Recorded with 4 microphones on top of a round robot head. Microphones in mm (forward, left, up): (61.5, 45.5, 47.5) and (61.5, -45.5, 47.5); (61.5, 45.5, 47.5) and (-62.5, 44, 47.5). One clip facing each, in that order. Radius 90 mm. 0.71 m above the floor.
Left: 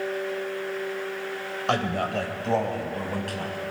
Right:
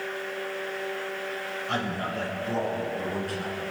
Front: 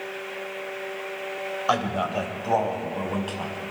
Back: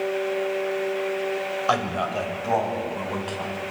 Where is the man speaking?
90° left, 3.5 m; by 3.6 s 80° left, 6 m.